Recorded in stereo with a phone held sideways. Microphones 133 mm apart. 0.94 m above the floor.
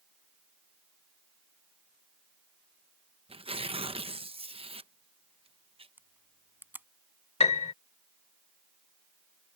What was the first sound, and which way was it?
Tearing paper, 45° right (ahead or behind).